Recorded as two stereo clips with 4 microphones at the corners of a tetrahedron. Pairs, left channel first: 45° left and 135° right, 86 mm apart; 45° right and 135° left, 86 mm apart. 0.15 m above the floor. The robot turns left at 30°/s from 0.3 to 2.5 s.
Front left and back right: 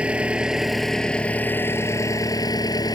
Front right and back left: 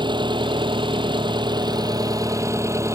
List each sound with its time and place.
0.0 s an engine running: 150° left; by 3.0 s 85° left